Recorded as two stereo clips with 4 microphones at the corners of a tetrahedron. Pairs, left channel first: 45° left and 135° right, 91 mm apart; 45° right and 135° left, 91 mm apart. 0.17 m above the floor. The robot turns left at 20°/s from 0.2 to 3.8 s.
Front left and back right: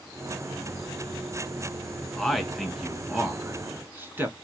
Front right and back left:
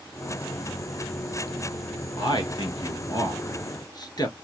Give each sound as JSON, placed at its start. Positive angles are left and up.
{"t": 2.2, "sound": "a man speaking", "azimuth_deg": -40, "distance_m": 1.7}